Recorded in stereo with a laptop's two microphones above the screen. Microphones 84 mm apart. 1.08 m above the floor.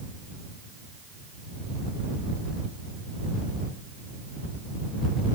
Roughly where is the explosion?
No explosion in this recording.